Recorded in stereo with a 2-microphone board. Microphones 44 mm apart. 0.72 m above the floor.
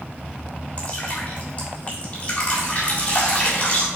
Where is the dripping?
35° left (ahead or behind), 1.9 m.